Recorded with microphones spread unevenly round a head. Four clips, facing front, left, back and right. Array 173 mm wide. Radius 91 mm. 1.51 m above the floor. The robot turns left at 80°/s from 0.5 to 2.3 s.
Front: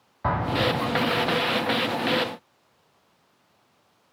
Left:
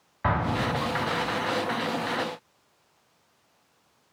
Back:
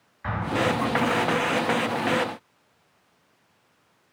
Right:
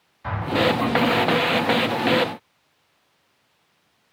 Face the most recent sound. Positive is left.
turn(degrees=-100)